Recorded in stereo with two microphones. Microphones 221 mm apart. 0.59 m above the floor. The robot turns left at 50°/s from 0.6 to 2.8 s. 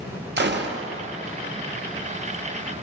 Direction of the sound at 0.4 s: 50° right (ahead or behind).